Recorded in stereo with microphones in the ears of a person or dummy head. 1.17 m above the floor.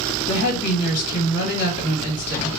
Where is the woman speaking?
65° left (ahead or behind), 1.4 m.